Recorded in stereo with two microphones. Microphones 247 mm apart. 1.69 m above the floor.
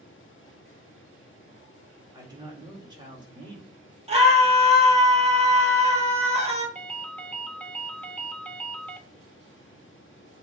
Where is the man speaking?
15° right (ahead or behind), 3 m.